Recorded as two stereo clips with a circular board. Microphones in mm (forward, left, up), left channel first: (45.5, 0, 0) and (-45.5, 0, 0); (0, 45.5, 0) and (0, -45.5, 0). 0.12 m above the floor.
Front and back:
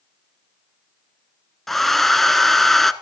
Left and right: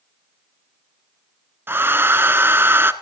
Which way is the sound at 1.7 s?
85° right.